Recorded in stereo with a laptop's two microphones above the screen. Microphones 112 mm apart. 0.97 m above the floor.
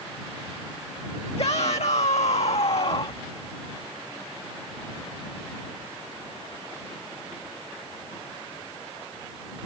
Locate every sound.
1.4 s a shout: 65° left (ahead or behind); by 3.2 s 50° left (ahead or behind)